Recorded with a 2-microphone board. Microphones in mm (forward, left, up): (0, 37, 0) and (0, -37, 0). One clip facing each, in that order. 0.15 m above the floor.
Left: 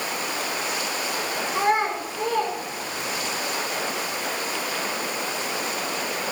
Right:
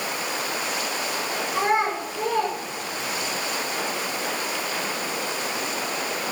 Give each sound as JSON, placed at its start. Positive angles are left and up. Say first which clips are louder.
{"t": 1.5, "sound": "a child speaking", "louder": "even", "side_deg": 5, "distance_m": 7.0}